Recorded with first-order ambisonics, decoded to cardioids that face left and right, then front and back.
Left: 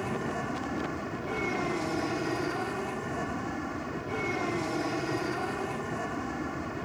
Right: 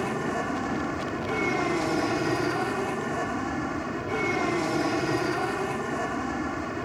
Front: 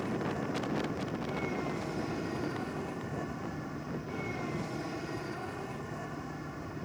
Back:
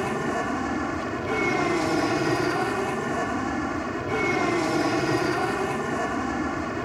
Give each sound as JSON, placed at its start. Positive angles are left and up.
{"t": 0.0, "sound": "an aircraft", "azimuth_deg": -155}